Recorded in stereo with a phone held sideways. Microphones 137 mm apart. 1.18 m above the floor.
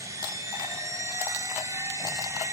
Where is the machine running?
20° right (ahead or behind), 2.5 m.